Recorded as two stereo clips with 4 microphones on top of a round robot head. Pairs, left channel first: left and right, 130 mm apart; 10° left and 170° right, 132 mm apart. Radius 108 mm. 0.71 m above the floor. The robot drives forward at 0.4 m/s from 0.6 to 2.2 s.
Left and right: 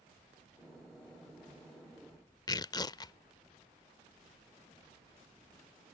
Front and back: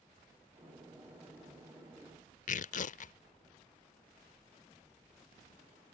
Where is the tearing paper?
30° left.